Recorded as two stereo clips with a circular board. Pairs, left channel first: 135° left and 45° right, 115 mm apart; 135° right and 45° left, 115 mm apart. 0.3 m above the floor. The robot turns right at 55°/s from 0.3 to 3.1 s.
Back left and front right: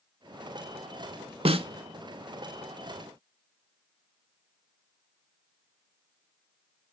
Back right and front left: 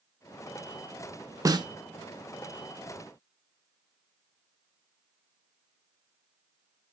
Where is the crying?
No crying in this recording.